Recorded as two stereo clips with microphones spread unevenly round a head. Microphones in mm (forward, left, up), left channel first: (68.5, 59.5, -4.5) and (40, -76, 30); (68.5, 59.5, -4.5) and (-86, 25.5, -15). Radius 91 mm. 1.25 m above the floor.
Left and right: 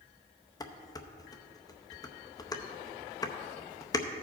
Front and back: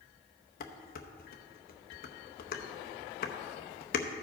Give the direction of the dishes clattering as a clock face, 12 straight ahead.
12 o'clock.